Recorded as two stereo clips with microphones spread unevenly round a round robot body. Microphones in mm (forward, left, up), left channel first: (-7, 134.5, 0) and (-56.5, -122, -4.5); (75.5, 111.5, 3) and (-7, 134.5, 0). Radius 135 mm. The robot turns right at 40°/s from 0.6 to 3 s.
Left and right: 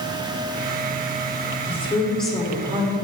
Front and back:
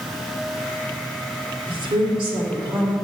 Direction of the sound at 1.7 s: 145° left.